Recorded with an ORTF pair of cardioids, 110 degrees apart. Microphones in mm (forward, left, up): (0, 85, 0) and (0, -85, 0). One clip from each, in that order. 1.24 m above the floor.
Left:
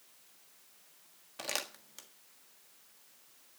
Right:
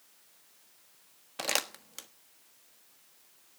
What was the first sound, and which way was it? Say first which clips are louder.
Crumpling: right 6 dB; 40° right.